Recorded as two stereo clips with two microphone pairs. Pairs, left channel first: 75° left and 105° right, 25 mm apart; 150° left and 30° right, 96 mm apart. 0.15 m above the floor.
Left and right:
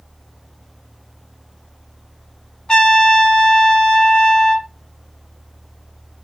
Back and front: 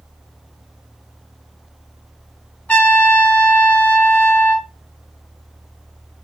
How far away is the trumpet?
About 0.7 m.